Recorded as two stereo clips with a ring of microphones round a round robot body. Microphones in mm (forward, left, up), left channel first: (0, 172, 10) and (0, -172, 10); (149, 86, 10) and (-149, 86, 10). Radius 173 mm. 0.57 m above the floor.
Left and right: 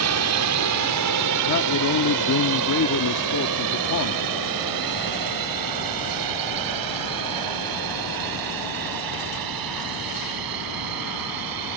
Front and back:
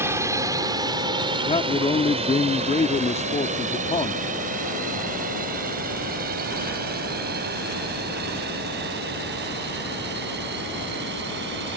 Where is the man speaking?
65° left.